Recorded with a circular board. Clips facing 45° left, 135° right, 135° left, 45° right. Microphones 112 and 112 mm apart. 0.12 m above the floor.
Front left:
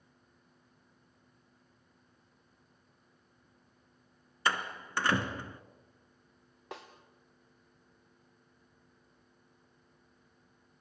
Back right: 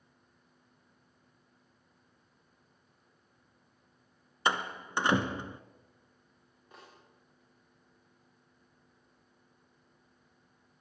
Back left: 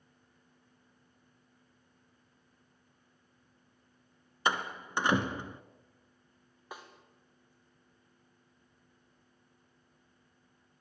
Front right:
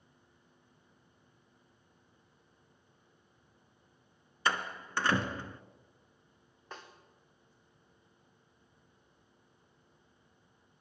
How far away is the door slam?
About 1.0 m.